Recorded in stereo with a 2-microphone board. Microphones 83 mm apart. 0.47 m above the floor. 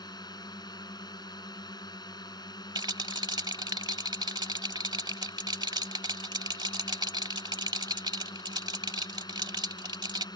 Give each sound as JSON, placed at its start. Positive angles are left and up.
{"t": 0.0, "sound": "a drone", "side_deg": 55}
{"t": 2.8, "sound": "a rattle", "side_deg": -60}